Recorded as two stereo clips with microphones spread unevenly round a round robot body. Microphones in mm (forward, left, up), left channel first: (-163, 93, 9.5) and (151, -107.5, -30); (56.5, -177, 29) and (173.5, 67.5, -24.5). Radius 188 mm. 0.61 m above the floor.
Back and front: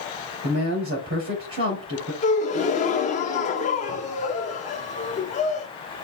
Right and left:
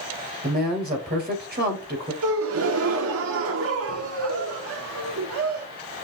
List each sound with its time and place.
0.4 s a man speaking: 20° left, 3 m
2.2 s a gasp: 75° left, 0.6 m